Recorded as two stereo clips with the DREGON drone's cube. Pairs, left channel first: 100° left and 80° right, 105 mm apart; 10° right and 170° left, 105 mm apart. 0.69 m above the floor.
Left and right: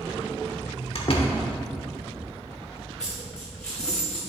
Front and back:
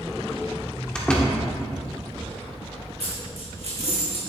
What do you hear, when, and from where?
0.9 s a door slam: 70° left, 1.3 m
3.0 s a dropped coin: 175° right, 2.5 m